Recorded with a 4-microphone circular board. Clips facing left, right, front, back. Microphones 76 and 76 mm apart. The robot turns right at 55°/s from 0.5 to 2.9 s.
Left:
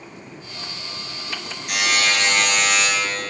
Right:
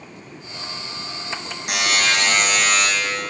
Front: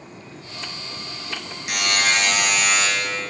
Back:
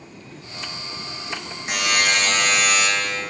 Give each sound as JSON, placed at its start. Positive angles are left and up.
{"t": 1.7, "sound": "a buzzer", "azimuth_deg": -115, "distance_m": 4.0}